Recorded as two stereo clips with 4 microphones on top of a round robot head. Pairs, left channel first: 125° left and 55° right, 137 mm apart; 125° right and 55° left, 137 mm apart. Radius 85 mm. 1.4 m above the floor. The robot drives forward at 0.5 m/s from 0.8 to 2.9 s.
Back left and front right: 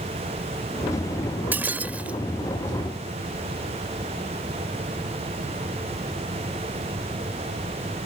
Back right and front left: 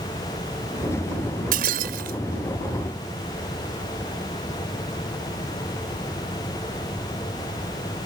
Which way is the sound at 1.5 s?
25° left.